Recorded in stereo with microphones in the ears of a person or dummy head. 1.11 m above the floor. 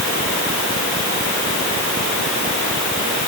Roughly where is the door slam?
I don't hear a door slam.